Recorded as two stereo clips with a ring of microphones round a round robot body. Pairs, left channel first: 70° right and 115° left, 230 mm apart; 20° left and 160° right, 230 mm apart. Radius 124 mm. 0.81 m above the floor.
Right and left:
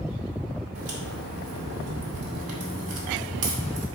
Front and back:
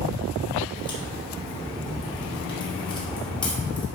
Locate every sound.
0.8 s a crack: 90° left, 2.5 m